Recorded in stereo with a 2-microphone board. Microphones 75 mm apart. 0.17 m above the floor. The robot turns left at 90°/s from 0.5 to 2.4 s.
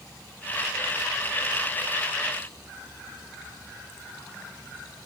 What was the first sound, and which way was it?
Only background noise.